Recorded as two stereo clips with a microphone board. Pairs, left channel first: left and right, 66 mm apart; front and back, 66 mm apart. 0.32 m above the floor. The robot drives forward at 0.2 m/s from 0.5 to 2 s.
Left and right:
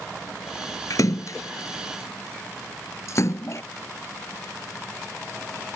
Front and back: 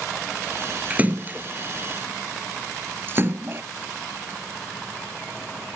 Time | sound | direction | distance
0.9 | a splash | 115° left | ?